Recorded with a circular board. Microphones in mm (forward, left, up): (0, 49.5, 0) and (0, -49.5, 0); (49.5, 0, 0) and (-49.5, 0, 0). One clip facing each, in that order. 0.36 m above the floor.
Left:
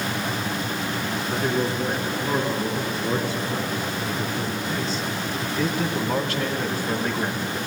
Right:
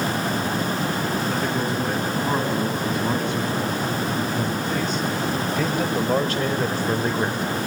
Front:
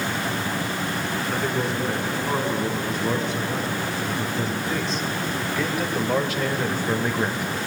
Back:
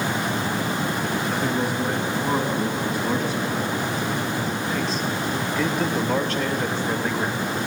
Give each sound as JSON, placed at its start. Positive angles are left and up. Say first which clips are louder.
{"t": 1.3, "sound": "a man speaking", "louder": "even, front 1 dB", "azimuth_deg": -100, "distance_m": 4.5}